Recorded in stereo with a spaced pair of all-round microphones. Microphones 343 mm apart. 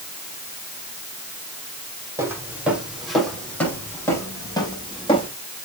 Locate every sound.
2.2 s footsteps: 10° right (ahead or behind), 4.5 m; by 5.3 s 15° left (ahead or behind), 5.5 m